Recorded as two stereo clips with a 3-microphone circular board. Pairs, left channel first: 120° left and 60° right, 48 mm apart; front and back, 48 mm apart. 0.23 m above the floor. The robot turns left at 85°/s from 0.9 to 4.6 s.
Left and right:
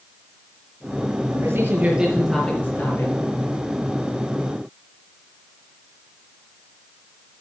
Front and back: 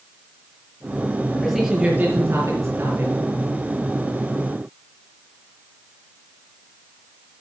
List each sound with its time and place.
1.3 s a man speaking: 65° right, 3.5 m; by 3.1 s 140° left, 3.5 m